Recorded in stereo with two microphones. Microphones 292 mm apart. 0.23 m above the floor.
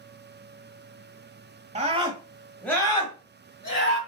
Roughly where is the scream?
Right.